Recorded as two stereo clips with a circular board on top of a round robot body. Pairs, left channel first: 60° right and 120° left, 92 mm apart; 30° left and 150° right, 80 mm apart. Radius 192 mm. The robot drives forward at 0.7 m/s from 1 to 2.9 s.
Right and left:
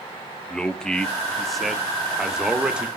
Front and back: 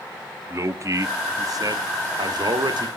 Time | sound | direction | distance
0.5 | a man speaking | 140° right | 1.7 m